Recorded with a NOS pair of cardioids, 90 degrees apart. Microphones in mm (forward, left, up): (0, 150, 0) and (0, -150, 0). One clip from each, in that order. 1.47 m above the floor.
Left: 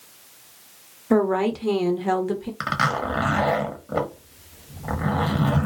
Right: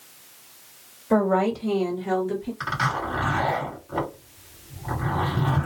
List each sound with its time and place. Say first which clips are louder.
1.1 s a woman speaking: even; 25° left, 1.0 m; by 2.5 s 70° left, 1.3 m
2.6 s a zipper: left 3 dB; 50° left, 1.3 m